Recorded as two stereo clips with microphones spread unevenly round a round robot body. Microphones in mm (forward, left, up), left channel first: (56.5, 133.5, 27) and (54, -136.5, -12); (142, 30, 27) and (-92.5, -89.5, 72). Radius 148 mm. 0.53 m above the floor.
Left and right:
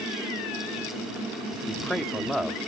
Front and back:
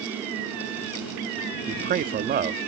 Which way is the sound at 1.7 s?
160° right.